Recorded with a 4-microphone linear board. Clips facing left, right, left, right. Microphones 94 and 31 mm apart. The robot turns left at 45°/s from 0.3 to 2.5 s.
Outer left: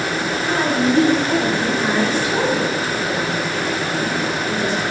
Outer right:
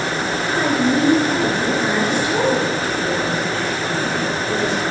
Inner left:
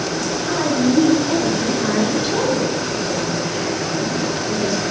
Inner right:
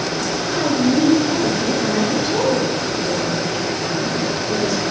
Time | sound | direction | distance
0.5 | a woman speaking | 120° left | 2 m